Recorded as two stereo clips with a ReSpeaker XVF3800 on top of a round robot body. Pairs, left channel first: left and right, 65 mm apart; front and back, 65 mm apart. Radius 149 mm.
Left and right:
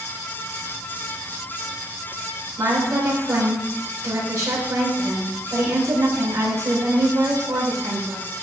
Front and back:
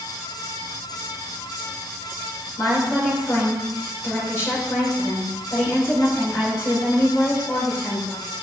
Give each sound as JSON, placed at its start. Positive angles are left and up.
{"t": 2.6, "sound": "a woman speaking", "azimuth_deg": -55, "distance_m": 4.5}